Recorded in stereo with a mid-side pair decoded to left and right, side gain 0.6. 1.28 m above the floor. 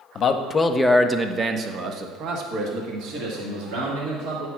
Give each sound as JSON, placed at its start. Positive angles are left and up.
{"t": 0.1, "sound": "a man speaking", "azimuth_deg": 45, "distance_m": 0.9}